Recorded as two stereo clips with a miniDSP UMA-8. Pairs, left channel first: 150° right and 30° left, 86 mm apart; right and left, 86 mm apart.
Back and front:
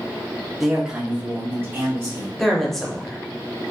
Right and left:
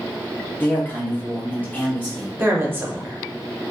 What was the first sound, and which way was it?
A man speaking, 55° right.